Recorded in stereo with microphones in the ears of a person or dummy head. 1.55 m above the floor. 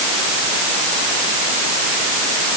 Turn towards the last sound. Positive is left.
No sound to turn to.